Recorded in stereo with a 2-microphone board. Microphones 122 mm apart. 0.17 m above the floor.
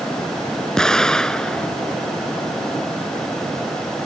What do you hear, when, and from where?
0.8 s an explosion: 5° left (ahead or behind)